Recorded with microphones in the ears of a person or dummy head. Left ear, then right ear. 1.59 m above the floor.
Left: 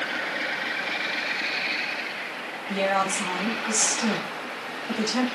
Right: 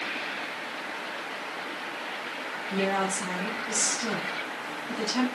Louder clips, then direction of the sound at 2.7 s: Left 4 dB; 80° left.